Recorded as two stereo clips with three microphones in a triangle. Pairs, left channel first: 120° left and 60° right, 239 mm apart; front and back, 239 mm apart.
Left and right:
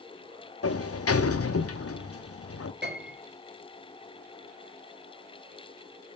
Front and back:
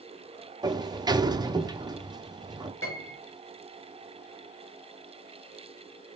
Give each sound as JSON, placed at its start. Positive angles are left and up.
{"t": 0.6, "sound": "a sliding door", "azimuth_deg": 110, "distance_m": 0.6}
{"t": 2.8, "sound": "a piano", "azimuth_deg": -20, "distance_m": 4.5}